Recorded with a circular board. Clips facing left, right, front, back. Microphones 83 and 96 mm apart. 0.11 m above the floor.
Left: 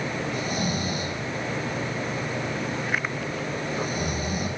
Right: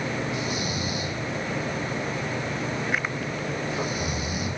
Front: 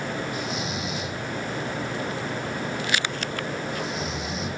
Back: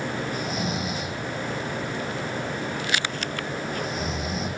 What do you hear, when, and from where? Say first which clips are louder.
0.3 s snoring: left 1 dB, back 2 dB; 135° left, 2.5 m